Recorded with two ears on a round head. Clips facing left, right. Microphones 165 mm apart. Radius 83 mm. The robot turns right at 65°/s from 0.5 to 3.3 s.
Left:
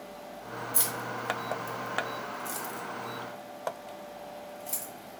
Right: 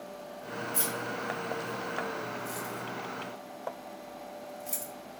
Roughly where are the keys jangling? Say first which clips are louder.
Right 1 dB; centre.